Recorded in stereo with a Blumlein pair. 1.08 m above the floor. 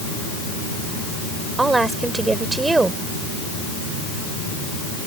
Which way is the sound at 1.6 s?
10° right.